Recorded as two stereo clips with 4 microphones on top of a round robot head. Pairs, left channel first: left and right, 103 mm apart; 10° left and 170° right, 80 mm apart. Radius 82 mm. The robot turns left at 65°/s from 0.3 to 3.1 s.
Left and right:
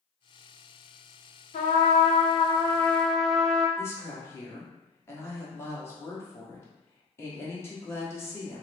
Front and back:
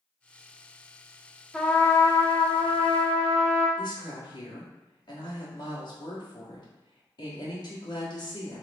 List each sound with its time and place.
1.5 s a trumpet: 100° left, 0.5 m; by 3.7 s straight ahead, 0.5 m
3.8 s a woman speaking: 25° left, 1.2 m